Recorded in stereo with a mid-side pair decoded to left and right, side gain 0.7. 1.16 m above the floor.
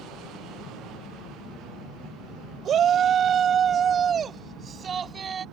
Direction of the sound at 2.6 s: 40° right.